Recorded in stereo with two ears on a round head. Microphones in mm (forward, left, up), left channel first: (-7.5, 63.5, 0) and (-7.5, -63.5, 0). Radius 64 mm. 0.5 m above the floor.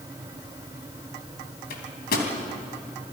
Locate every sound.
1.7 s a microwave: 75° left (ahead or behind), 3.5 m